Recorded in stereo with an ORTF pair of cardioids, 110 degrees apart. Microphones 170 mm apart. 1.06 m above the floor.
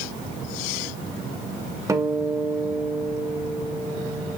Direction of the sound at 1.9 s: 20° right.